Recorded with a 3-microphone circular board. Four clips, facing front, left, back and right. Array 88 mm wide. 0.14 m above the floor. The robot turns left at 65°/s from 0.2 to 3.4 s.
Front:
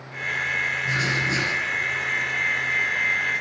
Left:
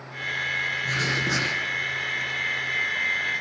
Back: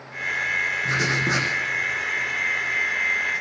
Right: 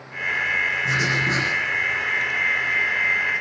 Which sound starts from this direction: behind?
Writing, at 0.8 s.